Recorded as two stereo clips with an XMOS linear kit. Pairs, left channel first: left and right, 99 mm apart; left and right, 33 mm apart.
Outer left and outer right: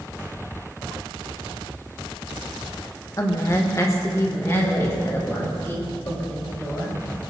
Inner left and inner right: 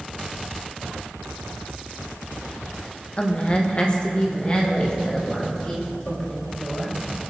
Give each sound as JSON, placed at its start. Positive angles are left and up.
{"t": 3.2, "sound": "a woman speaking", "side_deg": 35, "distance_m": 1.4}